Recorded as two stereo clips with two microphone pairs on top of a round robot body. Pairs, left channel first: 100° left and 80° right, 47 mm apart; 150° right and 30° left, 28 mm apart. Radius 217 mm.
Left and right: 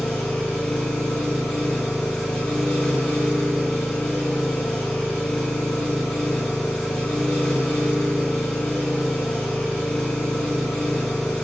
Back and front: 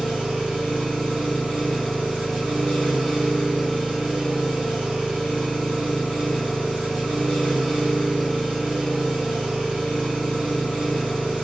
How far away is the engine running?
About 1.0 m.